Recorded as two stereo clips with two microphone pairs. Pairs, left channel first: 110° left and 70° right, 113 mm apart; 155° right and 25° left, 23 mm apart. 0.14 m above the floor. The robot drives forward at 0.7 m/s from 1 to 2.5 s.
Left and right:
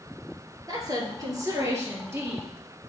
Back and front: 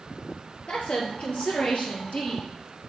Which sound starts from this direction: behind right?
A woman speaking, at 0.7 s.